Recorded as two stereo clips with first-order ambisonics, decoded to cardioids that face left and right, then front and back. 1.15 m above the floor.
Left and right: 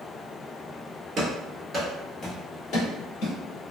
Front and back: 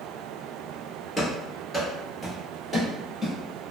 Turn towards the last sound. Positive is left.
turn(degrees=90)